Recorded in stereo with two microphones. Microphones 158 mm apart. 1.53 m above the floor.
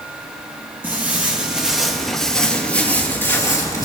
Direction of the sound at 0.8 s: 10° right (ahead or behind).